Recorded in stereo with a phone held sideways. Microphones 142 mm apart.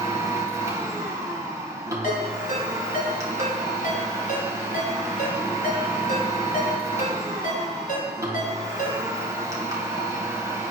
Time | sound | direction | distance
0.0 | a machine running | 25° right (ahead or behind) | 3 m
2.0 | a ringtone | 75° left (ahead or behind) | 5 m